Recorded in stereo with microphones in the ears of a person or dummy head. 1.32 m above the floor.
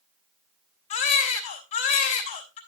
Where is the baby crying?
40° left (ahead or behind), 3.5 m.